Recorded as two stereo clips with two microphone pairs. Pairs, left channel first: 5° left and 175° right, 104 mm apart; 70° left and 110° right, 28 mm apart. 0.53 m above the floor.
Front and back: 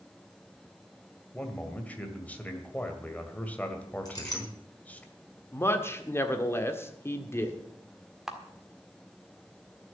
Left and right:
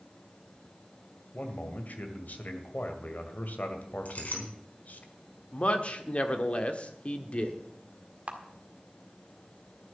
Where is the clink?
55° left, 4 m.